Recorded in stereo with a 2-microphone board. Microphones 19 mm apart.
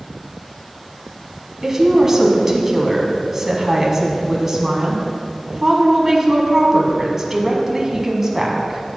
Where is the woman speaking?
25° right (ahead or behind), 1.5 m.